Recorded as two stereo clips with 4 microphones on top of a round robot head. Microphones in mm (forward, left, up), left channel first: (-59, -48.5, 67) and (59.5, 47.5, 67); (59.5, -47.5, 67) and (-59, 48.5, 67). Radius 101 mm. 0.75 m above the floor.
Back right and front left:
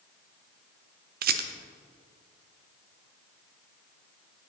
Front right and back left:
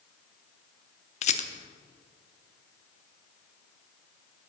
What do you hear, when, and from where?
1.2 s a rattle: 10° left, 0.5 m